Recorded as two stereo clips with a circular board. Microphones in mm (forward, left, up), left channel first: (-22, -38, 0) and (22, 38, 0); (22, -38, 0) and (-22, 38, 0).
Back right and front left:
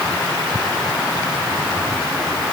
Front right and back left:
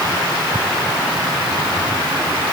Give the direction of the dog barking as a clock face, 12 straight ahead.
No dog barking in this recording.